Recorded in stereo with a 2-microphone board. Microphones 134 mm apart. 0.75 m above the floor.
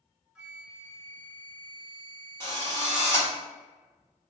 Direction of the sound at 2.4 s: 20° left (ahead or behind).